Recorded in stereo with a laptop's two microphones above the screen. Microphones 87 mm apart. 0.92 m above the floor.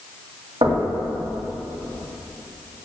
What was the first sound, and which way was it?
Knocking, 70° right (ahead or behind).